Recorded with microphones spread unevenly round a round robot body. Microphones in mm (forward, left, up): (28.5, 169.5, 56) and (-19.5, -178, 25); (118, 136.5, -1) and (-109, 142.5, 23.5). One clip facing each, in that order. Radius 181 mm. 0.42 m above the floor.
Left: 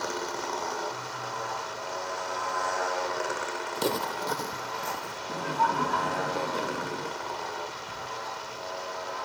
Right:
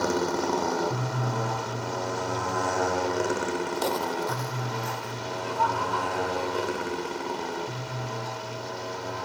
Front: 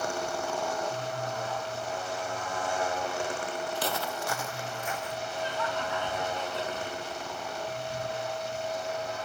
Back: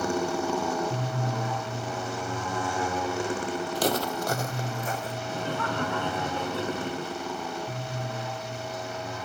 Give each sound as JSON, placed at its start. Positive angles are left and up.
{"t": 0.0, "sound": "a motorcycle", "azimuth_deg": -140}
{"t": 3.8, "sound": "footsteps", "azimuth_deg": 150}
{"t": 5.3, "sound": "laughter", "azimuth_deg": 145}